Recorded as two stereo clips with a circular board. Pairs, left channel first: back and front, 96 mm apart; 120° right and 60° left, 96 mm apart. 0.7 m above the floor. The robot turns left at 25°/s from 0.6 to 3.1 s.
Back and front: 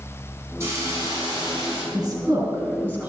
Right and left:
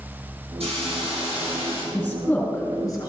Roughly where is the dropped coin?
No dropped coin in this recording.